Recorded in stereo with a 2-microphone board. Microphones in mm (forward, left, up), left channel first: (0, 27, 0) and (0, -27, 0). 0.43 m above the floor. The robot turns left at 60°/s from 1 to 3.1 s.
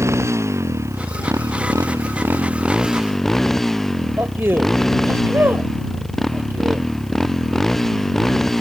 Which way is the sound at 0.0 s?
60° right.